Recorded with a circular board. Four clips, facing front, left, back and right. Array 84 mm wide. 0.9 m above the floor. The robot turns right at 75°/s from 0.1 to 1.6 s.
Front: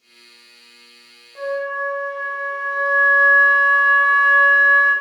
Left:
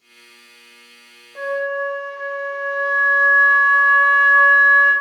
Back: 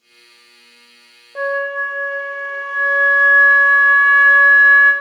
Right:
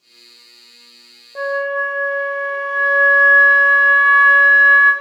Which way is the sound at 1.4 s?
155° right.